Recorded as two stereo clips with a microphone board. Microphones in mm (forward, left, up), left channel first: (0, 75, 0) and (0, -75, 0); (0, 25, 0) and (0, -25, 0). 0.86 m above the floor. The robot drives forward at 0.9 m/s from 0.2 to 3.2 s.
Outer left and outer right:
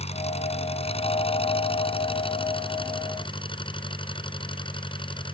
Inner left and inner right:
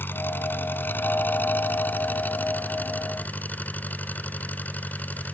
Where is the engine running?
45° left (ahead or behind); by 5.3 s 35° left (ahead or behind).